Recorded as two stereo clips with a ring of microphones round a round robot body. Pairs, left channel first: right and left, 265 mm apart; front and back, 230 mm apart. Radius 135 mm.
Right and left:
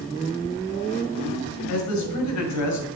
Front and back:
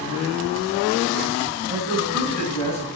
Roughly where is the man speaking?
Right.